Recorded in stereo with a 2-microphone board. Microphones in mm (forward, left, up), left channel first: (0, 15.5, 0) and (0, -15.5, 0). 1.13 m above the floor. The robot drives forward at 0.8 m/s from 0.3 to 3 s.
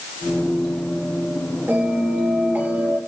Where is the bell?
80° right, 4.5 m; by 3.0 s 75° right (ahead or behind), 4.5 m.